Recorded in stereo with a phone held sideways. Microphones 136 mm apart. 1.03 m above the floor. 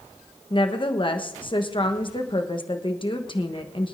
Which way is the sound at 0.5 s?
35° left (ahead or behind).